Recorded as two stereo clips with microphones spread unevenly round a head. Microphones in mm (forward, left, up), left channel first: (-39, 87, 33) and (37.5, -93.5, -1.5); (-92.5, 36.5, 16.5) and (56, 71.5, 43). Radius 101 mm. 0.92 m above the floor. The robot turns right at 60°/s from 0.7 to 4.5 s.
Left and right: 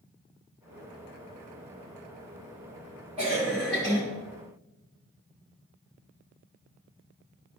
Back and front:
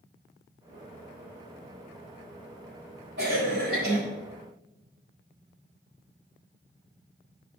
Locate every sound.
3.2 s a cough: 5° right, 2.5 m; by 4.0 s 45° left, 2.5 m